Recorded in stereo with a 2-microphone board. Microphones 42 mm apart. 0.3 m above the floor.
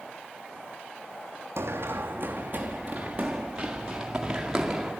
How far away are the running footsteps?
About 0.8 m.